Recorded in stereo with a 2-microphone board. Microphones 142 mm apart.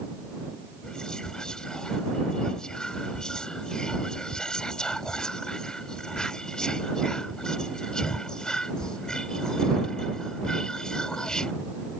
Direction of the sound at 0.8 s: 5° left (ahead or behind).